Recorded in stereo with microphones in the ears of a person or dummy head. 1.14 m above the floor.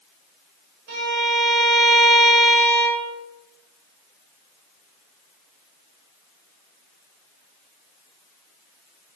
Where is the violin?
85° right, 1.9 m.